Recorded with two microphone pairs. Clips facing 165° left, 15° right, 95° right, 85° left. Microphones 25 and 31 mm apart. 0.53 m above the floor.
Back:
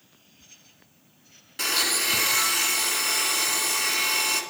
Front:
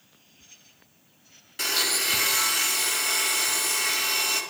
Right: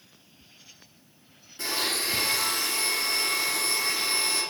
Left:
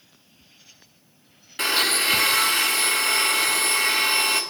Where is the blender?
85° left, 2 m.